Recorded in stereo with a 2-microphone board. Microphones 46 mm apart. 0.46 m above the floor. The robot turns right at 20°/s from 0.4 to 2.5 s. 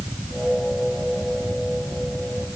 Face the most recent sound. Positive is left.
No sound to turn to.